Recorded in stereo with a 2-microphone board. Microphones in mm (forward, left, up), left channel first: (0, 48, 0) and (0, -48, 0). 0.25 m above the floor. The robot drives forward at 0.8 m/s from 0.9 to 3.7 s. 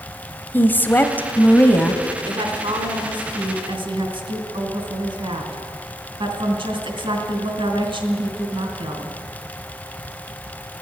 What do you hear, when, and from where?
0.5 s a woman speaking: 20° left (ahead or behind), 1.0 m; by 2.0 s 15° left (ahead or behind), 1.3 m
2.3 s a woman speaking: 60° right (ahead or behind), 2.5 m